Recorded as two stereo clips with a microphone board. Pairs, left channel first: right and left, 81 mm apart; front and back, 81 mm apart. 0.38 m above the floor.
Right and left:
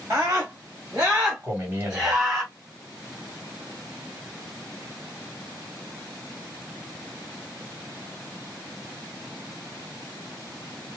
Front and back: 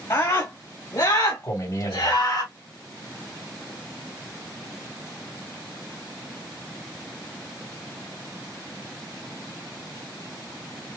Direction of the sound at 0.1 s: 35° left.